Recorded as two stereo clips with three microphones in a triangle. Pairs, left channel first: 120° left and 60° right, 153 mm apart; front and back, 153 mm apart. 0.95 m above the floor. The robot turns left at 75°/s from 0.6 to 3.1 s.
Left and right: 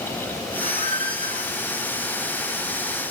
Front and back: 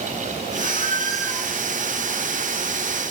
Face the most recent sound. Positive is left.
turn(degrees=150)